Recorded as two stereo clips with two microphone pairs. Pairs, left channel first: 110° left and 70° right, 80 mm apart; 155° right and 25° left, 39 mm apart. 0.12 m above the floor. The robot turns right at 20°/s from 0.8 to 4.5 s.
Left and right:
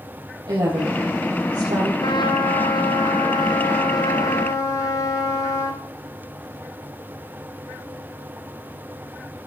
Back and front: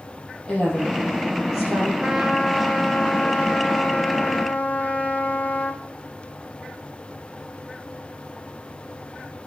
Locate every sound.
0.5 s a woman speaking: 85° right, 3.5 m; by 1.9 s 65° right, 3.5 m
2.0 s a trumpet: 110° left, 1.0 m; by 5.8 s 160° left, 1.0 m